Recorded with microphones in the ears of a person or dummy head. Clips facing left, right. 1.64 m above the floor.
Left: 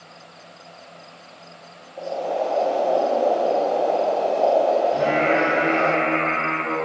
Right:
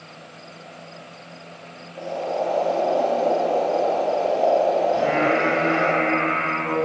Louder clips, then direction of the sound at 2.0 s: Left 1 dB; 10° left (ahead or behind).